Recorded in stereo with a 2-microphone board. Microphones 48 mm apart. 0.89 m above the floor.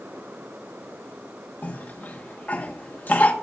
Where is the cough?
40° left (ahead or behind), 1.0 m.